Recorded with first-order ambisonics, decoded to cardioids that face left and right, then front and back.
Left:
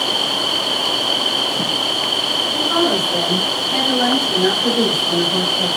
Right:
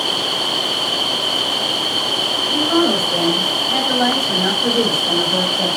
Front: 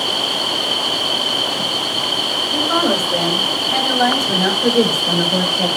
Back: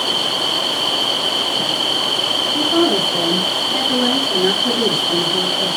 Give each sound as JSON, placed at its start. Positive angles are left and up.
{"t": 2.5, "sound": "a woman speaking", "azimuth_deg": -20, "distance_m": 5.5}